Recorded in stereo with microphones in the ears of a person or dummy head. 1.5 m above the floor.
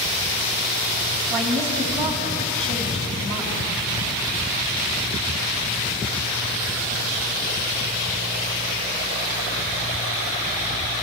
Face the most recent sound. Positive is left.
turn(degrees=-30)  # may be behind; listen again after turning